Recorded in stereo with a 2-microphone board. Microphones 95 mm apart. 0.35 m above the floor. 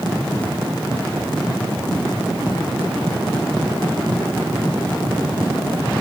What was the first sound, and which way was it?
Only background noise.